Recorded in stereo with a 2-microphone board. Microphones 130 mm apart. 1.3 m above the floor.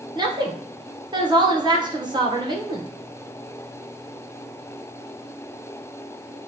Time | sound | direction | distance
0.1 | a woman speaking | 35° right (ahead or behind) | 0.9 m